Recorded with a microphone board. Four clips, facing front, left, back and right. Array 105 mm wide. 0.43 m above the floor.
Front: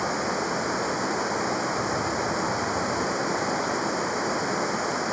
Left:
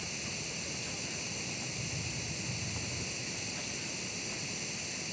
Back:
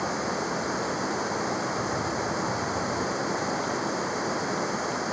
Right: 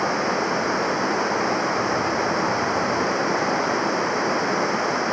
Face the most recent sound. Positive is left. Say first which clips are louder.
# right 23 dB, front 2 dB
turn(degrees=-85)